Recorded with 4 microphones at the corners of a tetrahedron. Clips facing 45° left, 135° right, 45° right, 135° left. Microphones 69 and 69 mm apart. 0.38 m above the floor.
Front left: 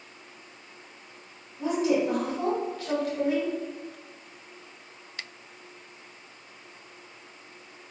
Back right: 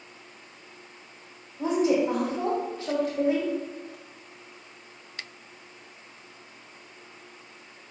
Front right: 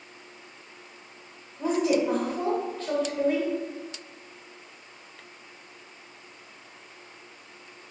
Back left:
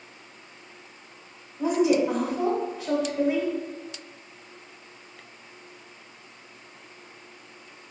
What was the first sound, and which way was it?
A woman speaking, 155° right.